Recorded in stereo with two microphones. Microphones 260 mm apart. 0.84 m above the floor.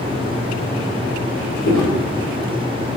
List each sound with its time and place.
1.6 s footsteps: 60° left (ahead or behind), 1.7 m